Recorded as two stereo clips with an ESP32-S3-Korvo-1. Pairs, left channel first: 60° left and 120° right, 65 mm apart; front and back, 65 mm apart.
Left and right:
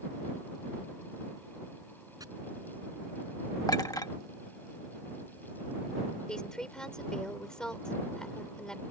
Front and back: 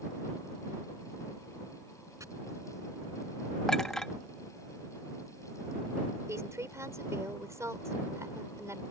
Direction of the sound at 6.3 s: 140° left.